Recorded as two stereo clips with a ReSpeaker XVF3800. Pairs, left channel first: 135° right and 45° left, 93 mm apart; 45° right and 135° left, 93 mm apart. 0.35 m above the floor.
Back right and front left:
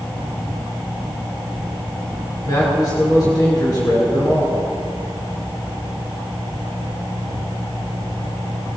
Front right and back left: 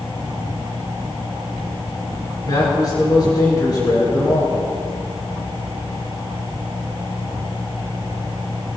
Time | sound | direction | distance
2.4 | a man speaking | 90° right | 5.5 m